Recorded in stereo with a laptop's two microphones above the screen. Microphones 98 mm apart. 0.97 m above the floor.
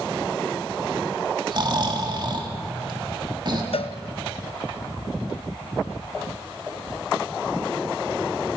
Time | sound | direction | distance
1.5 | snoring | 45° right (ahead or behind) | 1.8 m
3.7 | a cowbell | 70° left (ahead or behind) | 0.6 m